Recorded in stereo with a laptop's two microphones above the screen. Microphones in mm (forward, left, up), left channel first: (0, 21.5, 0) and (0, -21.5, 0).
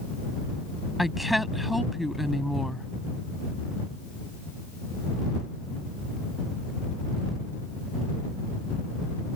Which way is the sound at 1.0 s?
Centre (ahead or behind).